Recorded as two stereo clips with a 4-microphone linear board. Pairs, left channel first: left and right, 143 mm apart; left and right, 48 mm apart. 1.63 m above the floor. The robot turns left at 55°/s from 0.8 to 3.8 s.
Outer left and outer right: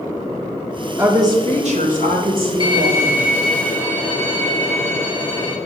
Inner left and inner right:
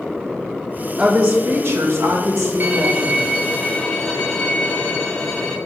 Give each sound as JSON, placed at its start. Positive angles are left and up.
{"t": 1.0, "sound": "a woman speaking", "azimuth_deg": -15, "distance_m": 1.8}
{"t": 2.6, "sound": "a violin", "azimuth_deg": -130, "distance_m": 1.3}